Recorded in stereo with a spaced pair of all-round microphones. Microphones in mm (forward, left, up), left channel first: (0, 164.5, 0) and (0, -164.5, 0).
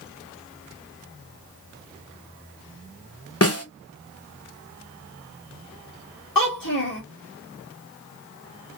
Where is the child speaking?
75° left (ahead or behind), 1.2 m.